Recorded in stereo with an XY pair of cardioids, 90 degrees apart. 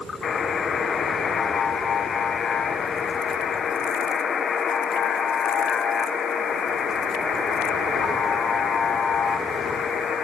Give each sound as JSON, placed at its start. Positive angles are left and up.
{"t": 0.2, "sound": "a buzzer", "azimuth_deg": 55, "distance_m": 1.3}